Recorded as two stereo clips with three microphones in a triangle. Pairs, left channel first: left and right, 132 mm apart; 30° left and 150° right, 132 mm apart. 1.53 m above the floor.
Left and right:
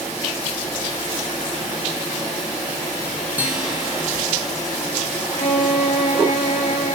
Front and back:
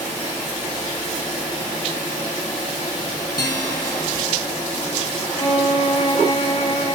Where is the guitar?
20° right, 1.8 m.